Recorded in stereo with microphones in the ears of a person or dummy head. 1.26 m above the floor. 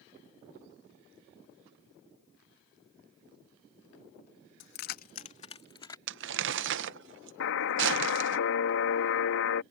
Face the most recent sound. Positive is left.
turn(degrees=65)  # may be behind; listen again after turning